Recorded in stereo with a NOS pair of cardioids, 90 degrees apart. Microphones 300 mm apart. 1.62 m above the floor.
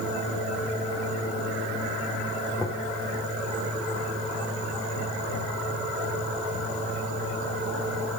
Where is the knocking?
5° right, 5 m.